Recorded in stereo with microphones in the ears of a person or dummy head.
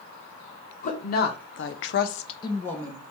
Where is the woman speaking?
35° left (ahead or behind), 1.1 m; by 3.0 s 10° left (ahead or behind), 1.0 m.